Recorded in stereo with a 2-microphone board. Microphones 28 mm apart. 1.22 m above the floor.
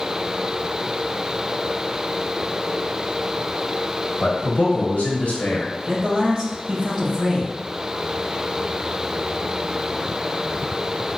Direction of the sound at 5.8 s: 30° right (ahead or behind).